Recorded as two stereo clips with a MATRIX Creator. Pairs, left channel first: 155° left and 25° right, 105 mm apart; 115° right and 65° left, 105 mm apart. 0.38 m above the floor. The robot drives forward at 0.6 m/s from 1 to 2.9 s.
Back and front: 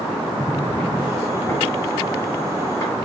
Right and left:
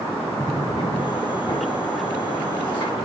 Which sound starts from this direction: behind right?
A drawer, at 0.4 s.